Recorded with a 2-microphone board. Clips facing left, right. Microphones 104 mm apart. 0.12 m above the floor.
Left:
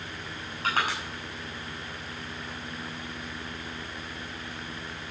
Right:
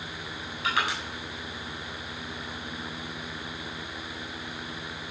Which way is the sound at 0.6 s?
40° left (ahead or behind).